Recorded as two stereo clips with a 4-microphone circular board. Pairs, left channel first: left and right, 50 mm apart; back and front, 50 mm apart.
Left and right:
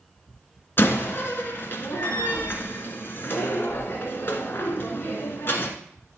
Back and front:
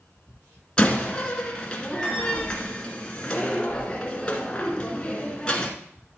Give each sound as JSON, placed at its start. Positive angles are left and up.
{"t": 0.8, "sound": "a door slam", "azimuth_deg": 115, "distance_m": 1.3}